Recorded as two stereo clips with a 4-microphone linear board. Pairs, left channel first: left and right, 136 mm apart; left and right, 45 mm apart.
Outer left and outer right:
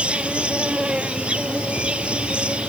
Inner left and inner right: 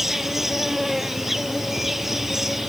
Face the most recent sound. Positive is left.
turn(degrees=-10)  # may be behind; listen again after turning